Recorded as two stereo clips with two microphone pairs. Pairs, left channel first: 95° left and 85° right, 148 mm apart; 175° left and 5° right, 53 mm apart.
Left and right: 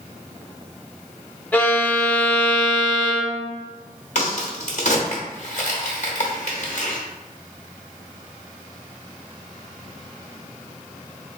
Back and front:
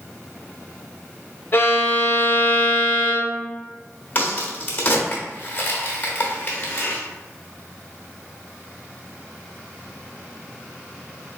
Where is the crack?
125° left, 1.0 m.